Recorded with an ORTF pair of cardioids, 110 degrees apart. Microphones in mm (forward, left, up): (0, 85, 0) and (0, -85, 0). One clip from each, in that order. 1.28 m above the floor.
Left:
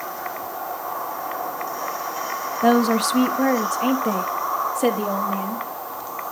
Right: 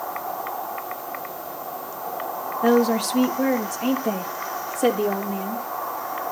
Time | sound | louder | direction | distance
2.6 | a woman speaking | left 1 dB | 15° left | 0.9 m